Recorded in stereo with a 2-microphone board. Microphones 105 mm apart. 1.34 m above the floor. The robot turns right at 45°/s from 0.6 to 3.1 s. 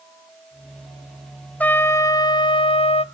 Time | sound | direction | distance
1.6 | a trumpet | 15° left | 0.5 m